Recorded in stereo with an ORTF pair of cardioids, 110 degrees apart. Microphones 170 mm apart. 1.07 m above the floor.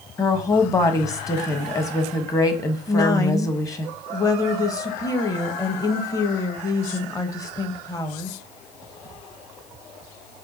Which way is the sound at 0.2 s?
20° left.